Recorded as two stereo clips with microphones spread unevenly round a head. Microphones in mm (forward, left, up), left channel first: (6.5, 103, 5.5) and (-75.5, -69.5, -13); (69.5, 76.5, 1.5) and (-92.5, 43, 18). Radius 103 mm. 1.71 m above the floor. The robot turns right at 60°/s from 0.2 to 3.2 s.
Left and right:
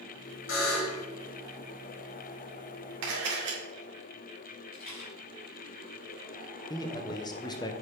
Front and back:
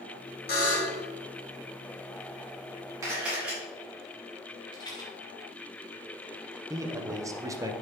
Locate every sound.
0.5 s a buzzer: 40° left, 2 m; by 1.1 s 75° left, 2 m
3.0 s a camera shutter: 100° right, 2 m; by 3.6 s 90° right, 2 m
4.7 s a rattle: 75° left, 2.0 m
6.7 s a man speaking: 125° left, 0.8 m